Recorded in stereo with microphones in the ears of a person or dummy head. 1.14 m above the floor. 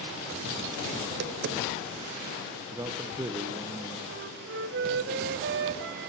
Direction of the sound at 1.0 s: 60° right (ahead or behind).